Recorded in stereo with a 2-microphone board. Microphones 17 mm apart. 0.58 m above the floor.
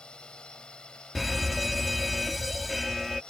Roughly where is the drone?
Left.